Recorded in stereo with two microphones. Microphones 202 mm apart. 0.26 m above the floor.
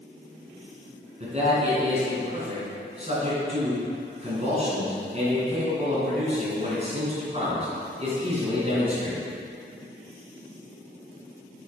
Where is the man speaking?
35° right (ahead or behind), 2.5 m.